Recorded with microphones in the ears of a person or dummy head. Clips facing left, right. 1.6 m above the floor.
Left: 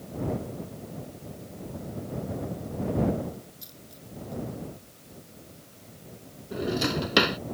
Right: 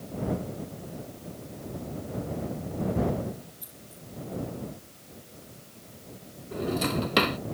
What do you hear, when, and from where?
3.6 s a dropped coin: 40° left (ahead or behind)
6.5 s a drawer: 15° left (ahead or behind)